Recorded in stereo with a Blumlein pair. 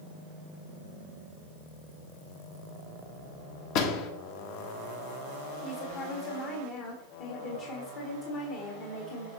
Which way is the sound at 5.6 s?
40° left.